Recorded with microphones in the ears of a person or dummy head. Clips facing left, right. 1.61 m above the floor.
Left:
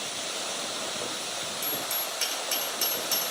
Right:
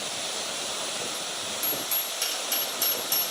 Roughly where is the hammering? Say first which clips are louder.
Even; left.